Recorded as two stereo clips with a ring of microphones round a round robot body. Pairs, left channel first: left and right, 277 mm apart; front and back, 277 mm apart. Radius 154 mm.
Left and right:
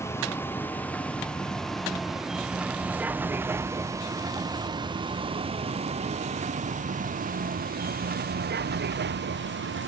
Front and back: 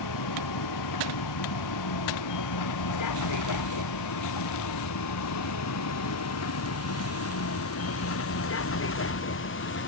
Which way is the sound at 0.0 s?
10° left.